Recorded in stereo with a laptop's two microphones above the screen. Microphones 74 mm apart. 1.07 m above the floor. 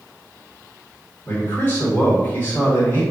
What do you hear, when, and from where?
1.2 s a man speaking: 30° left (ahead or behind), 1.3 m